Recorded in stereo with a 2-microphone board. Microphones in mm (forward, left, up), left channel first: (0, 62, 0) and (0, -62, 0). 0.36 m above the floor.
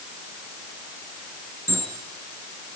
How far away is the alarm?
About 3.5 m.